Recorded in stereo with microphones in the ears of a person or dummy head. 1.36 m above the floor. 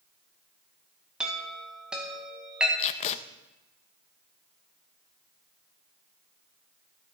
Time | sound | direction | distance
1.2 | a chime | 5° right (ahead or behind) | 1.9 m
2.8 | tape being pulled | 35° left (ahead or behind) | 0.7 m